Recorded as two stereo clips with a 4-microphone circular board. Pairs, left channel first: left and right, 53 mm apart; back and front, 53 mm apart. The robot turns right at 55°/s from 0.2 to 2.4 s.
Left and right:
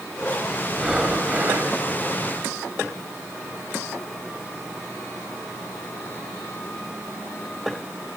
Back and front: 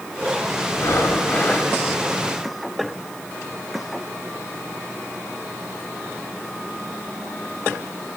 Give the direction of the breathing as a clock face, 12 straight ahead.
6 o'clock.